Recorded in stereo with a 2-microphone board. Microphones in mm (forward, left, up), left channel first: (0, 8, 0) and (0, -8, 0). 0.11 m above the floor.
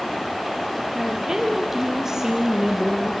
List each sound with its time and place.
0.9 s a woman speaking: 25° right (ahead or behind), 3 m